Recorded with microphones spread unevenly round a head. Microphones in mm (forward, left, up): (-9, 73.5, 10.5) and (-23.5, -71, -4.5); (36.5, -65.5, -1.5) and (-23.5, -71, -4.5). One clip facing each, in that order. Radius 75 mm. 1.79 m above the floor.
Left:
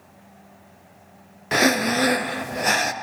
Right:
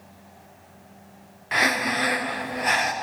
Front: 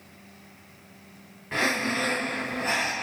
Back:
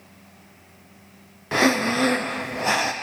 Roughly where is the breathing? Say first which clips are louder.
Left 6 dB, back 6 dB; behind left.